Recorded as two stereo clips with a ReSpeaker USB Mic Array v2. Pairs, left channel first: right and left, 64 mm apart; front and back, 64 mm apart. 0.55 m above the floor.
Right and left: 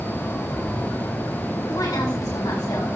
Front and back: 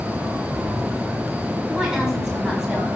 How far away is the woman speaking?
About 5 m.